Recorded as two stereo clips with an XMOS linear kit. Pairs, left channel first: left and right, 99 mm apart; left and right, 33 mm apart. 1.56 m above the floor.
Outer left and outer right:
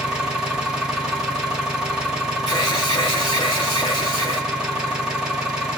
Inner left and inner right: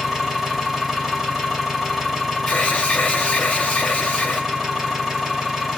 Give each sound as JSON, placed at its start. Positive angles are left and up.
{"t": 0.0, "sound": "an engine running", "side_deg": -10, "distance_m": 2.0}
{"t": 2.5, "sound": "an alarm", "side_deg": 40, "distance_m": 1.6}